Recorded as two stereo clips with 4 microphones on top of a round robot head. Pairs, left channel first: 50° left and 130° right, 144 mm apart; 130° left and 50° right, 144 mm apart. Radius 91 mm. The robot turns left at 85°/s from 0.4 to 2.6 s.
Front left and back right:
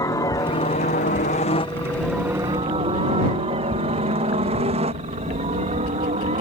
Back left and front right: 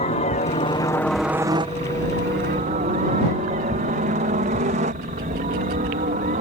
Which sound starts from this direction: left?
A helicopter, at 0.0 s.